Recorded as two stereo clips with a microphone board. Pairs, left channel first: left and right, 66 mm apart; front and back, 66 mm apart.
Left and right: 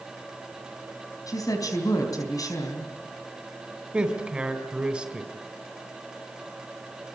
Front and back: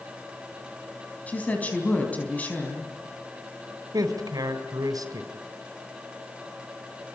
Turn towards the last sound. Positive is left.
turn(degrees=-165)